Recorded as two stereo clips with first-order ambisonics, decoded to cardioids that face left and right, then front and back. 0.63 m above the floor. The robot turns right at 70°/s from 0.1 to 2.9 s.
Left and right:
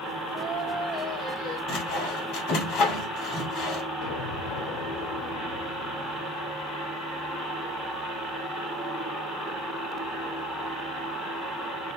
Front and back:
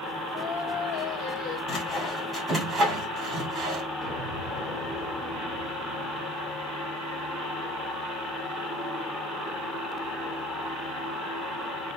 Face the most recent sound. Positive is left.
turn(degrees=80)